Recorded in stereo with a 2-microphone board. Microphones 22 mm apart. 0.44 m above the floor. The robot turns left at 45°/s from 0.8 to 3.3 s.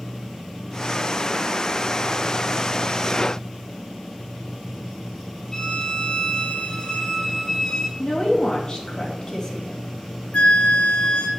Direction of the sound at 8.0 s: 30° left (ahead or behind).